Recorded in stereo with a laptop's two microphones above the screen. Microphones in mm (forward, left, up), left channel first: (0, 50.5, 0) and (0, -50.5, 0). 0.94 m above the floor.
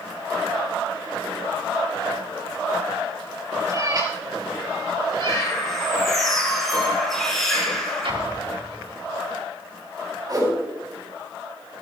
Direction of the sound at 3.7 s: 35° right (ahead or behind).